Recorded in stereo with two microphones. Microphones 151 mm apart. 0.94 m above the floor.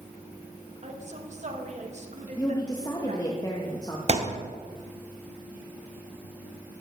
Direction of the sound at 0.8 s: 50° right (ahead or behind).